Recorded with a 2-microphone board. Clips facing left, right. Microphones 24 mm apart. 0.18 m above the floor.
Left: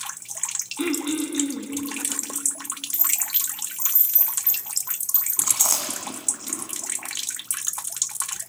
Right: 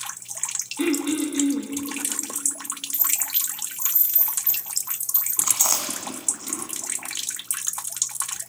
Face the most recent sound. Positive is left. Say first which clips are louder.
# even
turn(degrees=-5)  # may be behind; listen again after turning